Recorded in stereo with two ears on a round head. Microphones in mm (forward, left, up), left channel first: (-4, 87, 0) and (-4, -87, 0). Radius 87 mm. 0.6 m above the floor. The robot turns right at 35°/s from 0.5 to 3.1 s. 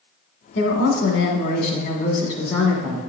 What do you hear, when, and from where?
0.6 s a woman speaking: 70° left, 1.5 m; by 3.0 s 155° left, 1.5 m